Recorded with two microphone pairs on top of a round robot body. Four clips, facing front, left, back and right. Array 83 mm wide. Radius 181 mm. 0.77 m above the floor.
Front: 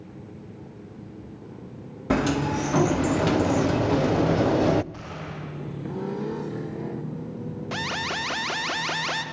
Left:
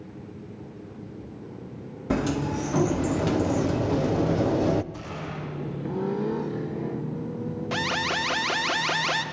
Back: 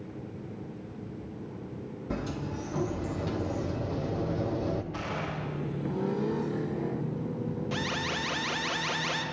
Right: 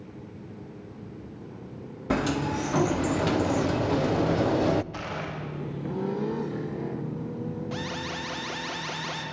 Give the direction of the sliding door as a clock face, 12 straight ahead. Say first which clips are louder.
Even, front 12 dB; 1 o'clock.